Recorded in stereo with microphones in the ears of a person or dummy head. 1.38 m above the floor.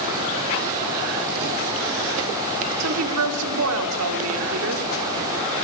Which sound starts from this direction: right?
A woman speaking, at 2.8 s.